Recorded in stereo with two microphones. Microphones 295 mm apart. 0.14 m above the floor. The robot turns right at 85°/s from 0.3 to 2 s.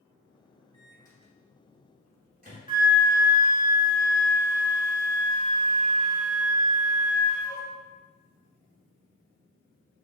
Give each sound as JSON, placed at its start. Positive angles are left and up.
{"t": 0.7, "sound": "a microwave", "side_deg": 25, "distance_m": 1.3}
{"t": 2.7, "sound": "a flute", "side_deg": 30, "distance_m": 0.8}